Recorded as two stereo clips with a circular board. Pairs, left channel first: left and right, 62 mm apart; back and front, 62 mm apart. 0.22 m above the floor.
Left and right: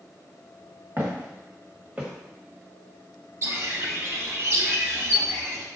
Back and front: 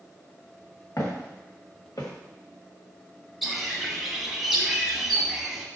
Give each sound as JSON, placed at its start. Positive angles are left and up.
{"t": 1.0, "sound": "footsteps", "azimuth_deg": -135, "distance_m": 1.5}
{"t": 3.4, "sound": "a bird", "azimuth_deg": -85, "distance_m": 0.7}